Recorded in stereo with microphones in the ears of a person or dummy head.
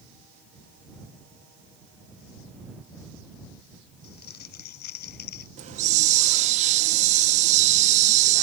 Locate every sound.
4.0 s crumpling: 60° left (ahead or behind)
5.6 s a hiss: 40° right (ahead or behind)